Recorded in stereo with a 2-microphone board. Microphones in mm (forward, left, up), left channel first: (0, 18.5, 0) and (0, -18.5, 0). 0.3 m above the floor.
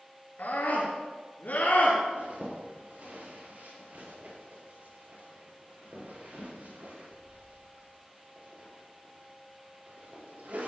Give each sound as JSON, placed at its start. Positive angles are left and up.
{"t": 0.4, "sound": "a scream", "side_deg": 60, "distance_m": 5.0}
{"t": 2.1, "sound": "a zipper", "side_deg": -50, "distance_m": 5.5}